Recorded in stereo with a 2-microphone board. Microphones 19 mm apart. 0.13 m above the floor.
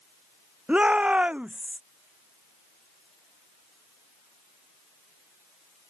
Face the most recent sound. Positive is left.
turn(degrees=-80)